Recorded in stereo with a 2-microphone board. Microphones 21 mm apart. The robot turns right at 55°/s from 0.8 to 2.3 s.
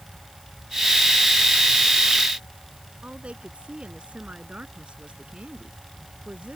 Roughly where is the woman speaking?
Right.